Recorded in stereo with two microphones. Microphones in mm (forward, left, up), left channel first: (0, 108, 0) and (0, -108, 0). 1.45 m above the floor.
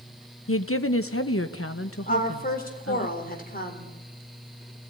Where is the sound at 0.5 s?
80° left, 0.9 m; by 3.1 s 90° left, 2.5 m.